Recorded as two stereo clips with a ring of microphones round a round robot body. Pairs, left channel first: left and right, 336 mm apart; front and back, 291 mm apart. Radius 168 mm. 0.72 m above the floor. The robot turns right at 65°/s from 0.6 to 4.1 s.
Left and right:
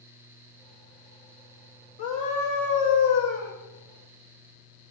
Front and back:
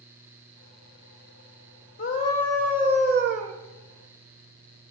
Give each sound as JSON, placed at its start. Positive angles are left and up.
{"t": 2.0, "sound": "a scream", "azimuth_deg": 55, "distance_m": 1.0}